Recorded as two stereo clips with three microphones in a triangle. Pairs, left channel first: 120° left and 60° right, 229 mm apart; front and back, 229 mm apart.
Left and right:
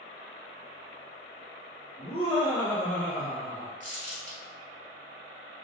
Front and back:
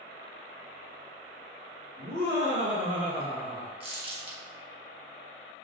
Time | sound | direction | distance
2.0 | laughter | 170° left | 1.3 m
3.8 | crumpling | 115° right | 0.8 m